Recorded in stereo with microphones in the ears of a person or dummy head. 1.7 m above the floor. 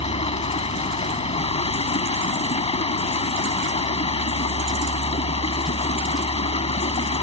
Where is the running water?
30° left (ahead or behind).